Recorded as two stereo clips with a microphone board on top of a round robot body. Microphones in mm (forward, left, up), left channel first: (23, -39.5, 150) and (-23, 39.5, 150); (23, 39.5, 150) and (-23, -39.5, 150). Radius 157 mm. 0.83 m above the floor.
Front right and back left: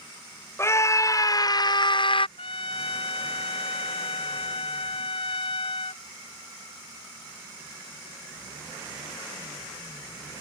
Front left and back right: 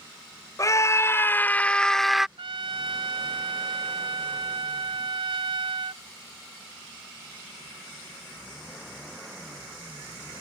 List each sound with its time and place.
0.6 s a scream: 5° left; by 2.3 s 35° right
2.4 s a trumpet: 85° right